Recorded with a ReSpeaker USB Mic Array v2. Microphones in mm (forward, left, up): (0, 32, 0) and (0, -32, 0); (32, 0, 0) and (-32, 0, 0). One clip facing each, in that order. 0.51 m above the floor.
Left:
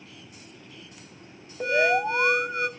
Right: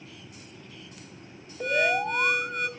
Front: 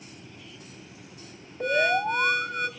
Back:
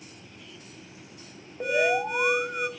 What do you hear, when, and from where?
1.6 s an alarm: 125° left, 2.0 m